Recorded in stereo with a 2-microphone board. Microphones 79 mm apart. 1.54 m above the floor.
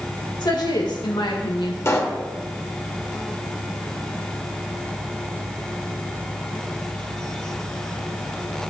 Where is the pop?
35° left (ahead or behind), 1.8 m.